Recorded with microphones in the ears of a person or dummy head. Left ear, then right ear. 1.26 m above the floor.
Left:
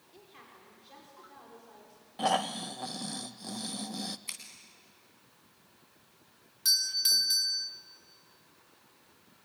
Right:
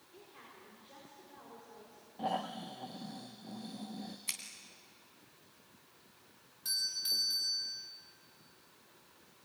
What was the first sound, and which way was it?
A woman speaking, 25° left (ahead or behind).